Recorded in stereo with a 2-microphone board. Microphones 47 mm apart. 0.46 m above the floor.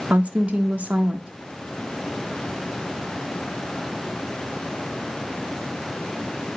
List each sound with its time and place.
0.1 s a woman speaking: 25° right (ahead or behind), 0.9 m